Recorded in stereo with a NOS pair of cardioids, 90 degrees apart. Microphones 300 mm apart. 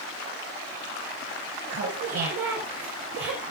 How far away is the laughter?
About 6 m.